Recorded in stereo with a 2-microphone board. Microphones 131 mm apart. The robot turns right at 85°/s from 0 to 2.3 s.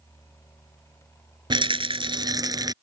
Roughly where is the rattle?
Behind right.